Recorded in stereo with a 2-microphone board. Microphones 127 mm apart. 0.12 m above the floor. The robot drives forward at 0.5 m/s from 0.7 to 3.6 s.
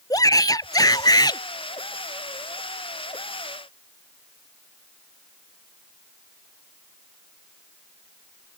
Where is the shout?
30° left (ahead or behind).